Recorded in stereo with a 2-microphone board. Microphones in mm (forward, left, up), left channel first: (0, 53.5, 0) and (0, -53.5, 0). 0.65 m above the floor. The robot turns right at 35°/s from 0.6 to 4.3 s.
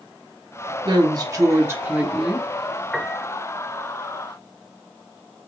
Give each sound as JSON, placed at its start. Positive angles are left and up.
{"t": 0.8, "sound": "a woman speaking", "azimuth_deg": -55, "distance_m": 0.9}
{"t": 2.9, "sound": "a piano", "side_deg": 5, "distance_m": 0.6}